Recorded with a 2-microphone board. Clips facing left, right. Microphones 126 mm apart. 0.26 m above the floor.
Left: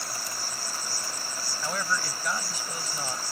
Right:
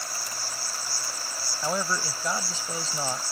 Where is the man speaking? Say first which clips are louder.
Right 3 dB; 25° right (ahead or behind).